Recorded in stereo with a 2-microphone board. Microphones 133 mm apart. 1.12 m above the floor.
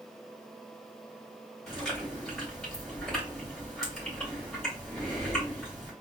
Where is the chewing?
5° left (ahead or behind), 2.5 m.